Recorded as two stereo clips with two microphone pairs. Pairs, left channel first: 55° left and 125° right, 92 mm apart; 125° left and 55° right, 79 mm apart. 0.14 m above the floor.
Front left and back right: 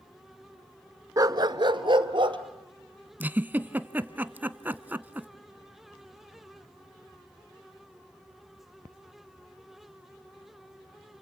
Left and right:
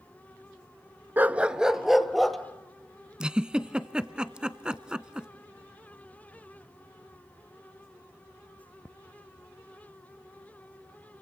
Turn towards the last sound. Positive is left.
turn(degrees=-105)